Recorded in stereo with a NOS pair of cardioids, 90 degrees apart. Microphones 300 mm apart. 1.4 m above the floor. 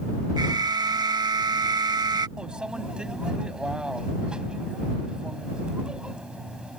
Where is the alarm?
15° right.